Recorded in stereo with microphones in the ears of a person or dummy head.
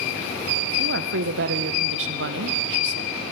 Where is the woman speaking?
70° right (ahead or behind), 1.5 m.